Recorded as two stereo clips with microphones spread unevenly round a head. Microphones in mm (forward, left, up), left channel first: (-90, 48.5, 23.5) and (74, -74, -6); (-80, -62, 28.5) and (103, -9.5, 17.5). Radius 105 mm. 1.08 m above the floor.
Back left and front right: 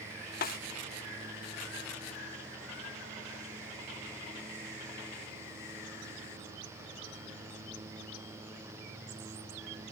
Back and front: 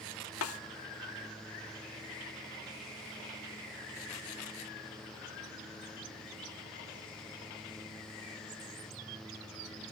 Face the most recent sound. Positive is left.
turn(degrees=-175)